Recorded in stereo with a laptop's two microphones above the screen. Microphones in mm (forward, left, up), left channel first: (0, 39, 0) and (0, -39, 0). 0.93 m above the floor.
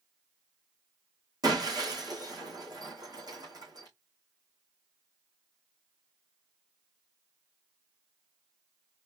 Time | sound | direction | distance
1.4 | breaking glass | 55° right (ahead or behind) | 3 m